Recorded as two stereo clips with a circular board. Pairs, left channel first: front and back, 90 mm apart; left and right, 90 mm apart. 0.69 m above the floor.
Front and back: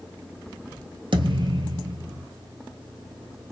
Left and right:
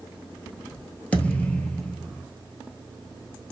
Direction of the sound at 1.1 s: 165° left.